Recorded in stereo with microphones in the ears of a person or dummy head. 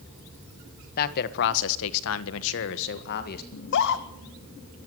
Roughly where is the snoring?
No snoring in this recording.